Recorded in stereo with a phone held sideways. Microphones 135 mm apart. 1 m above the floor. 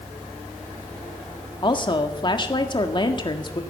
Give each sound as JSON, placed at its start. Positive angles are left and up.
{"t": 1.6, "sound": "a woman speaking", "side_deg": 35, "distance_m": 1.7}